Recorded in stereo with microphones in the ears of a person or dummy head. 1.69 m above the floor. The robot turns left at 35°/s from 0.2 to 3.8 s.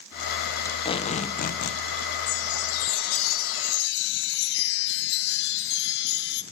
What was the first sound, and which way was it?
Tape being pulled, 165° left.